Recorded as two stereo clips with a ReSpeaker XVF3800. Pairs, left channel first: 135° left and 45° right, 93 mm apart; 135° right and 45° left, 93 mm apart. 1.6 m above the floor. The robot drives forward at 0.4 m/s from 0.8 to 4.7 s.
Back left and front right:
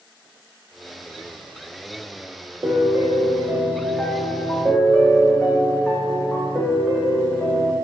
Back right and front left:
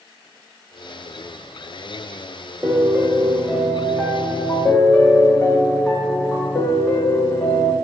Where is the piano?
10° right, 0.8 m; by 7.7 s 165° right, 0.7 m.